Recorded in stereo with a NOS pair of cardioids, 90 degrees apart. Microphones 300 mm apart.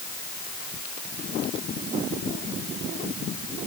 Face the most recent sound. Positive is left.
No sound to turn to.